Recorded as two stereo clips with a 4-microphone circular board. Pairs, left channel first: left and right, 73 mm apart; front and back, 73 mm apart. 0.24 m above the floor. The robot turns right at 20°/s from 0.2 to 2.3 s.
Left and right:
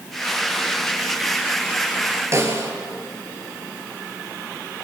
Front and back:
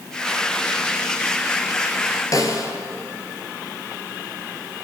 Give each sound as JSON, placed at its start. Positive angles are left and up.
{"t": 2.3, "sound": "a snare drum", "azimuth_deg": -40, "distance_m": 3.5}